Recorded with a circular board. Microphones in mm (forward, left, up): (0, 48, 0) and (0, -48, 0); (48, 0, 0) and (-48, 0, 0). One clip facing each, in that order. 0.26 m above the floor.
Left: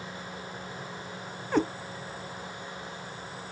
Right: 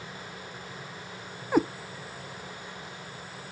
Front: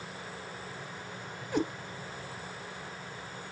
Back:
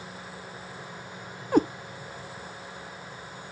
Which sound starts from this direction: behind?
A cat meowing, at 1.5 s.